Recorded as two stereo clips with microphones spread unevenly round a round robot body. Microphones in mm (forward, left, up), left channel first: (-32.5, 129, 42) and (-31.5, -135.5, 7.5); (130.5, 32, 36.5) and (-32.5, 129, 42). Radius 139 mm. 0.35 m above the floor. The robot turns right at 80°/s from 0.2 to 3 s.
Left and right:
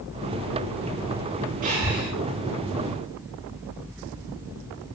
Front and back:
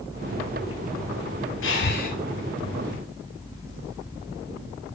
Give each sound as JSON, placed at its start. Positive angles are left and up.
{"t": 1.6, "sound": "breathing", "azimuth_deg": -30, "distance_m": 2.5}